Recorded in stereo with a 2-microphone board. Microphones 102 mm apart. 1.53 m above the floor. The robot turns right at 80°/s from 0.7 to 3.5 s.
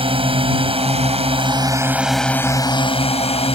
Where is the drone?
115° right; by 3.6 s 110° left.